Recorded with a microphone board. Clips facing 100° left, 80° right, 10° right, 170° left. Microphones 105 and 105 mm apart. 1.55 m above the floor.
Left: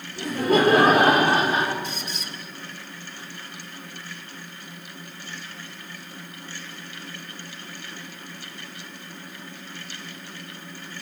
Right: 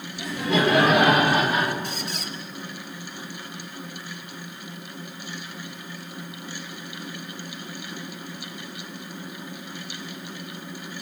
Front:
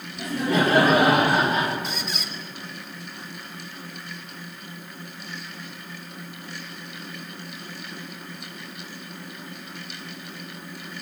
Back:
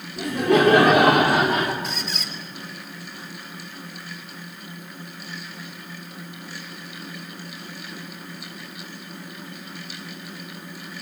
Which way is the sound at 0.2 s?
140° left.